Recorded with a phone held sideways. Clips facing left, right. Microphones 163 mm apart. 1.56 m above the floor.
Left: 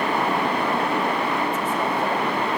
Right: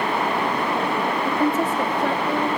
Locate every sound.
1.2 s a woman speaking: 80° right, 1.4 m